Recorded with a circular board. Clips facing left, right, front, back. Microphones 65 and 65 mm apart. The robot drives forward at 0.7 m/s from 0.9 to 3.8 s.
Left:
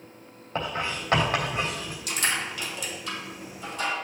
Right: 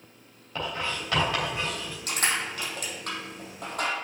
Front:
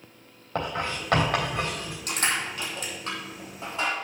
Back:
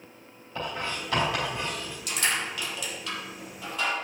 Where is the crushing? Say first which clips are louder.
Even, front 1 dB; 45° right, 3.5 m; by 3.9 s 65° right, 3 m.